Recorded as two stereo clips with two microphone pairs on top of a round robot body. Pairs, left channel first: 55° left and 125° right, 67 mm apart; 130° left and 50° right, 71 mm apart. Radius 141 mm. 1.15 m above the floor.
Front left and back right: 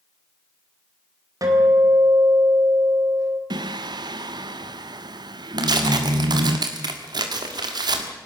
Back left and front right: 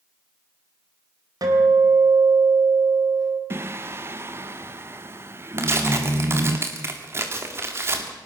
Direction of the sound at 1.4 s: 90° right.